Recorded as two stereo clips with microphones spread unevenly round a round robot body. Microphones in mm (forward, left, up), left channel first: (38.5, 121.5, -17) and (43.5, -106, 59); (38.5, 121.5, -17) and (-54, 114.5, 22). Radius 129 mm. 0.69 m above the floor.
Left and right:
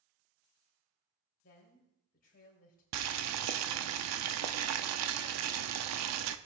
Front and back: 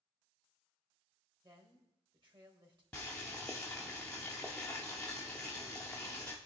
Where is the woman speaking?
145° left, 3 m.